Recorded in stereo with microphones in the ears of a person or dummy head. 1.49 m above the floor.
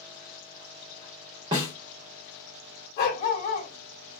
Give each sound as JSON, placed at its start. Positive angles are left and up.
{"t": 1.5, "sound": "a snare drum", "side_deg": -20, "distance_m": 0.9}
{"t": 3.0, "sound": "a dog barking", "side_deg": 45, "distance_m": 2.0}